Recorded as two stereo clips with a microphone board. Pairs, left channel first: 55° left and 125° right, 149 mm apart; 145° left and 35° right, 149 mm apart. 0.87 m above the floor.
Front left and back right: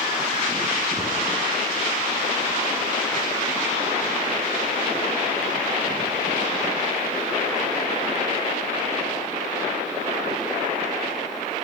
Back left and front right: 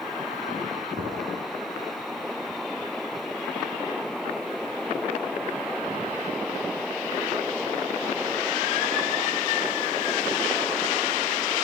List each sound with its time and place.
0.9 s knocking: 50° right, 6.5 m